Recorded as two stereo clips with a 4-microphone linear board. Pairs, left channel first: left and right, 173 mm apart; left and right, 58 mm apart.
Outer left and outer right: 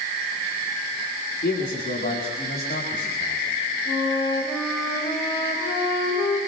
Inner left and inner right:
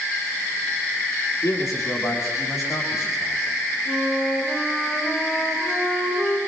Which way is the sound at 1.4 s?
75° left (ahead or behind).